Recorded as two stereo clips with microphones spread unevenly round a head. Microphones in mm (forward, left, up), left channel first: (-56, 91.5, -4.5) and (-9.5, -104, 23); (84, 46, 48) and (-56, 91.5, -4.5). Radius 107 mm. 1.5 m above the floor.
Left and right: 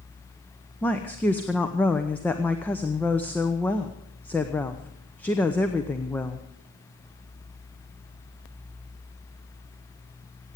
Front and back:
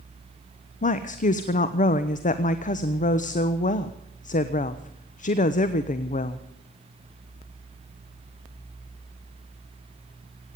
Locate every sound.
0.8 s a woman speaking: 20° left, 0.8 m